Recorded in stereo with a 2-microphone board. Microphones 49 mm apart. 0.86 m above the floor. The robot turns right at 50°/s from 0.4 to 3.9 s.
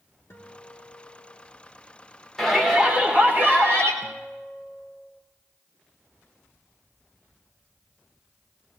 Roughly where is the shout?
Behind.